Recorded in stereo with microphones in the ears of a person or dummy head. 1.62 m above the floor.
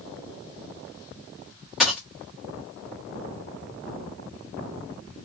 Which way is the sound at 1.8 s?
Centre (ahead or behind).